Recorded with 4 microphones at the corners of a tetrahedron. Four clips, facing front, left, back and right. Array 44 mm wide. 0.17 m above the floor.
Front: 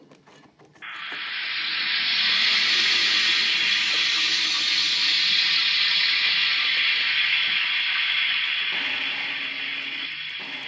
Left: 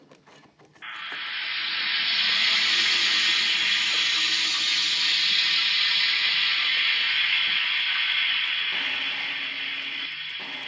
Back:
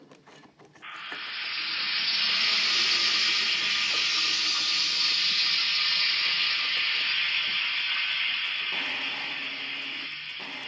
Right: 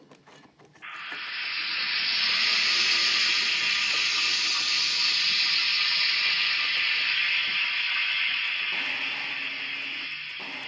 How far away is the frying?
About 1.0 m.